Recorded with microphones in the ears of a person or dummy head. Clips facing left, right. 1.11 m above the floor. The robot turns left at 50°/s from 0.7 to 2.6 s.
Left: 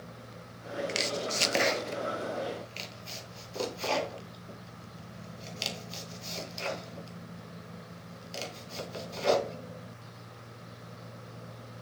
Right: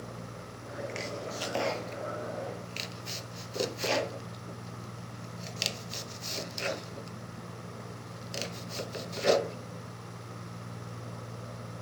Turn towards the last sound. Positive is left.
turn(degrees=-25)  # may be behind; listen again after turning